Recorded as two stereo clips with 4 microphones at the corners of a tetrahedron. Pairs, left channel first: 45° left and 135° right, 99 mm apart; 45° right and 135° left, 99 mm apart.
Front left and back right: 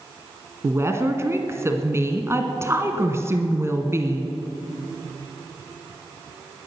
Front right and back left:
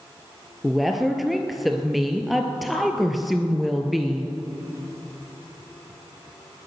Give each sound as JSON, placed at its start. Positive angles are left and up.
{"t": 0.6, "sound": "a woman speaking", "azimuth_deg": -140, "distance_m": 1.6}